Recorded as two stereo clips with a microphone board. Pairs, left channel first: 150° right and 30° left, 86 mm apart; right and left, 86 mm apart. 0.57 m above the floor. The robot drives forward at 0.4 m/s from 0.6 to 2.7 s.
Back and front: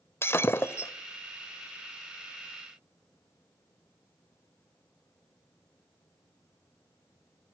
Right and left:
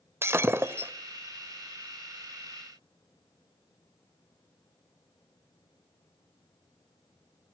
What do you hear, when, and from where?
0.2 s breaking glass: 150° left, 1.4 m